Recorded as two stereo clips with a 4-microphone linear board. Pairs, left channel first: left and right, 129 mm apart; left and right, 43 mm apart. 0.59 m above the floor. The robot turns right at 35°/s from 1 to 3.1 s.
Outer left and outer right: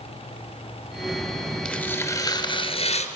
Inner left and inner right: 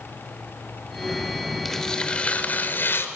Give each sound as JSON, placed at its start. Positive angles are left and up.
{"t": 1.6, "sound": "tearing paper", "azimuth_deg": 5, "distance_m": 3.5}